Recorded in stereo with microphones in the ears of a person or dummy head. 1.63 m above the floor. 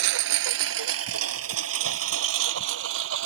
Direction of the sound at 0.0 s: 65° right (ahead or behind).